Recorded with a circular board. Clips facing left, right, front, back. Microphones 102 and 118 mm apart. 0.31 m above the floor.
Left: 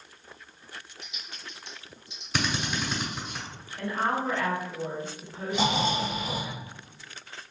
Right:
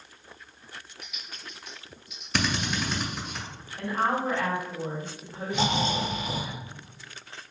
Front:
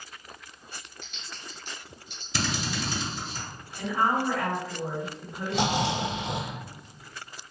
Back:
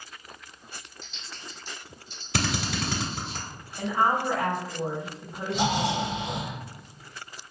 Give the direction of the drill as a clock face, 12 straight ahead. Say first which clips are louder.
Right 1 dB, back 2 dB; 6 o'clock.